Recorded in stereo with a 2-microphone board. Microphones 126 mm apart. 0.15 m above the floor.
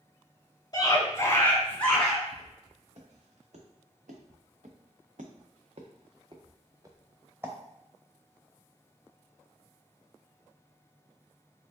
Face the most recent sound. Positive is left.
turn(degrees=-20)  # may be behind; listen again after turning